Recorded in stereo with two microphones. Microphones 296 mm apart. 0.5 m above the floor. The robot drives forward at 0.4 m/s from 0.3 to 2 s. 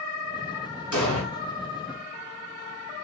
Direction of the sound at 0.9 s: 80° right.